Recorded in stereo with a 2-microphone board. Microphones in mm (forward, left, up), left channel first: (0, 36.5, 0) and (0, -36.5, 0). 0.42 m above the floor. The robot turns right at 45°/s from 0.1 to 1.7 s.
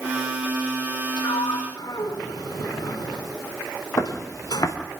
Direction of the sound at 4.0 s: 45° left (ahead or behind).